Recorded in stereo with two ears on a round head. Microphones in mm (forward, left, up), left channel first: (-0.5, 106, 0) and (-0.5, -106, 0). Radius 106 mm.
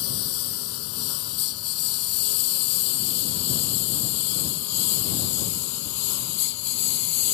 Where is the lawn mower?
70° left (ahead or behind); by 7.3 s 80° left.